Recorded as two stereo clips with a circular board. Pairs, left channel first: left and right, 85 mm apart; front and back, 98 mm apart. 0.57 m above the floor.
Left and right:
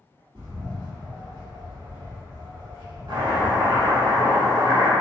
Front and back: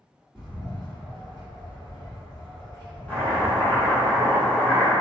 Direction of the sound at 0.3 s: 95° right.